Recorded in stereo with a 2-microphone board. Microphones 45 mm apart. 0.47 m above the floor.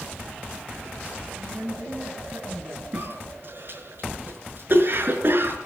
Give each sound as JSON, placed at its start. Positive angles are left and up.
{"t": 1.4, "sound": "a woman speaking", "side_deg": -80, "distance_m": 8.0}
{"t": 2.9, "sound": "a cough", "side_deg": -50, "distance_m": 5.5}